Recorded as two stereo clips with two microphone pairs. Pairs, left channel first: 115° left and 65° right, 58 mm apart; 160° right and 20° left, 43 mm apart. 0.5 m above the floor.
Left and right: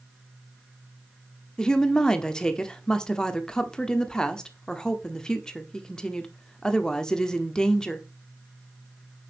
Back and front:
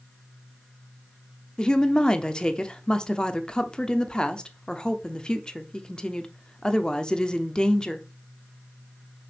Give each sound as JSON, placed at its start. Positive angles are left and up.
{"t": 1.6, "sound": "a woman speaking", "azimuth_deg": 175, "distance_m": 0.9}